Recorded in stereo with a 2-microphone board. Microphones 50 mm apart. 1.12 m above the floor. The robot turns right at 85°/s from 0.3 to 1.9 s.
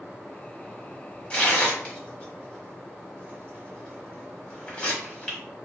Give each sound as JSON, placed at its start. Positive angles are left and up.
{"t": 1.3, "sound": "tearing paper", "side_deg": 20, "distance_m": 1.0}